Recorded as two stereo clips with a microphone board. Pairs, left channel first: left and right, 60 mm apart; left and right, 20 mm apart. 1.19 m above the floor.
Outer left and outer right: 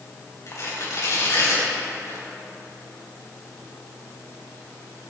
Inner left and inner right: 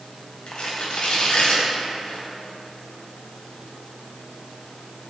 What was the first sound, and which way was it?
Tearing paper, 55° left (ahead or behind).